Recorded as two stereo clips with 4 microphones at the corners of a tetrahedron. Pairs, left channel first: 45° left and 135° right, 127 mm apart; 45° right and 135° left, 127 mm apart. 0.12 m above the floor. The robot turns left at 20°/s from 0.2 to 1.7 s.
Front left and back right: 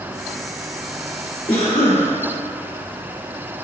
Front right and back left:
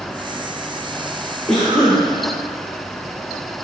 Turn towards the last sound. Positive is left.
turn(degrees=35)